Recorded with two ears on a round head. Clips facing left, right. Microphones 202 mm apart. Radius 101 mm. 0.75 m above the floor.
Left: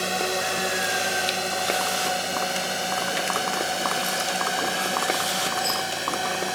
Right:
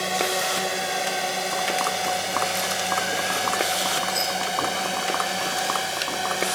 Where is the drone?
10° left (ahead or behind); by 6.5 s centre (ahead or behind).